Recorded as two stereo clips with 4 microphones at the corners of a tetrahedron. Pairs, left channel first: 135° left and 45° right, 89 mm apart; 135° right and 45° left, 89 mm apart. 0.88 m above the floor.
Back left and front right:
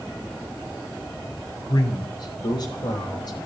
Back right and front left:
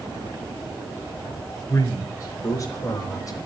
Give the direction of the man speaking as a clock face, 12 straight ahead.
7 o'clock.